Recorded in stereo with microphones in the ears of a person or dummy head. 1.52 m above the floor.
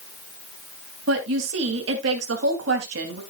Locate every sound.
1.1 s a woman speaking: 80° right, 2.5 m